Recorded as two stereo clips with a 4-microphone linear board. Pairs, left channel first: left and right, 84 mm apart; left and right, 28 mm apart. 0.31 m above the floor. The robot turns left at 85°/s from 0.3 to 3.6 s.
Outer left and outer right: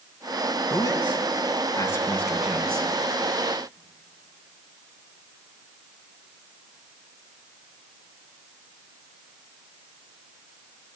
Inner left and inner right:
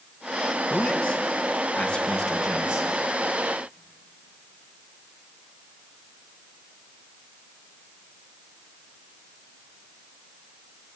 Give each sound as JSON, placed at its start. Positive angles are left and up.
{"t": 0.7, "sound": "a man speaking", "azimuth_deg": 140, "distance_m": 3.5}